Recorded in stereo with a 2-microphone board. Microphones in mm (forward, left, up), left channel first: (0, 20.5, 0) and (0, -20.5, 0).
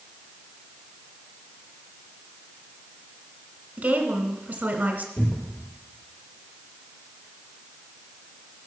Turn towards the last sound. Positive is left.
turn(degrees=50)  # may be behind; listen again after turning